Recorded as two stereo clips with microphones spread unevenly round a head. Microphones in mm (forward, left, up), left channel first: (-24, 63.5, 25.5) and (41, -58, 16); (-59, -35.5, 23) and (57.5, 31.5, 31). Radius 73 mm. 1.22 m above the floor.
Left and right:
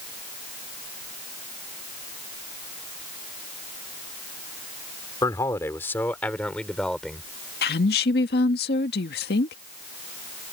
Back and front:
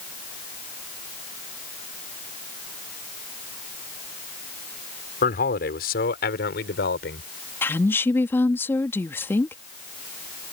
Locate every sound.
5.2 s a man speaking: 175° right; by 7.3 s 155° right
7.6 s a woman speaking: 135° left